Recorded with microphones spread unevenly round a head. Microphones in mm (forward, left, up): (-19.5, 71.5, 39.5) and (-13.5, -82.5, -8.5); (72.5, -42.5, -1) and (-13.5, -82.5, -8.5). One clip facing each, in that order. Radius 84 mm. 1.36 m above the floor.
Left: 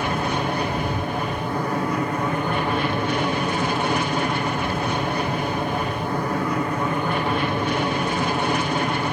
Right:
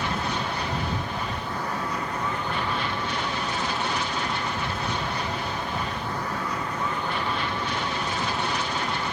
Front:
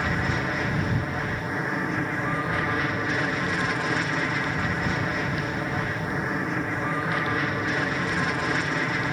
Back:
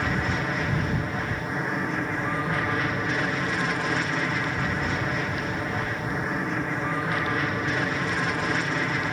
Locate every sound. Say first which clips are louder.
0.0 s an aircraft: left 5 dB, even; 115° left